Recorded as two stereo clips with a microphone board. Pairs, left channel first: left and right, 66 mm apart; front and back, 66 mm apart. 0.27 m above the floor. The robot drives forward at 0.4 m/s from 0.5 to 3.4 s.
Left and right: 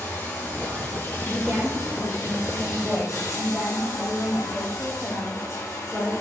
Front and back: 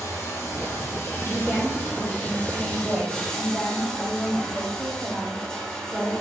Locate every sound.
0.0 s running water: 35° left, 2 m; by 6.2 s 70° left, 1.5 m
1.2 s a woman speaking: 25° right, 1.3 m; by 6.1 s 130° right, 1.2 m